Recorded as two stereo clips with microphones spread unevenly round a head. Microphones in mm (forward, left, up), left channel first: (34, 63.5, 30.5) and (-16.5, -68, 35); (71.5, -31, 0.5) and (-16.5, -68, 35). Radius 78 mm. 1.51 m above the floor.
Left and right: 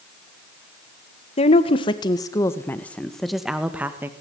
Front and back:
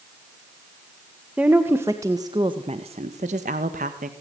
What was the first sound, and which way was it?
A woman speaking, 120° left.